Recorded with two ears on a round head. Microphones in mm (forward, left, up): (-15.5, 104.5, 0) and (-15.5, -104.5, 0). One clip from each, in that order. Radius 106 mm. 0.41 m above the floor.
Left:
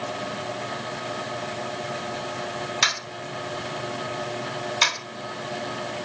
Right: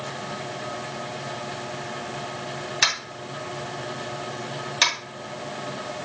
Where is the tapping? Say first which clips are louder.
Right 1 dB; 15° right (ahead or behind), 2.5 m.